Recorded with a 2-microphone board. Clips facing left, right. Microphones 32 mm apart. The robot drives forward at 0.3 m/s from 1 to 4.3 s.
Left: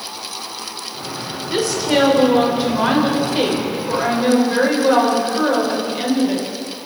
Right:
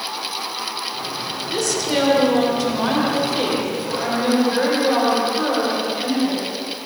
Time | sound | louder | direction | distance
1.5 | a woman speaking | left 4 dB | 25° left (ahead or behind) | 4.5 m